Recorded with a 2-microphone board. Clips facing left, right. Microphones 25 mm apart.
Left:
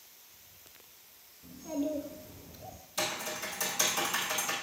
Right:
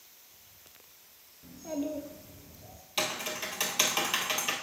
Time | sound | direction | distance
1.4 | a child speaking | 40° right (ahead or behind) | 0.9 m
3.0 | typing on a keyboard | 50° right (ahead or behind) | 1.2 m